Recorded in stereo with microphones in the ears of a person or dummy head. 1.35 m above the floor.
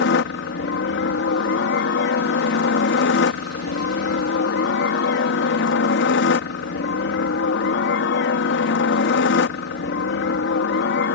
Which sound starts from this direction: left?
A helicopter, at 0.0 s.